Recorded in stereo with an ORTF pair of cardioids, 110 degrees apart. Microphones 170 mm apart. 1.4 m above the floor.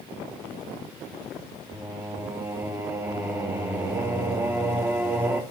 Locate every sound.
1.7 s singing: 15° right, 2.5 m